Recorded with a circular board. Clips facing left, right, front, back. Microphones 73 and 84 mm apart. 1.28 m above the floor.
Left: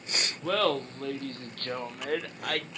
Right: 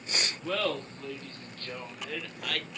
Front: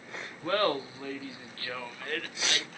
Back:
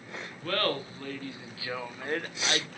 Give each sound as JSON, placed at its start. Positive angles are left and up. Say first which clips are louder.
{"t": 0.4, "sound": "laughter", "louder": "left 6 dB, front 2 dB", "azimuth_deg": 65, "distance_m": 1.1}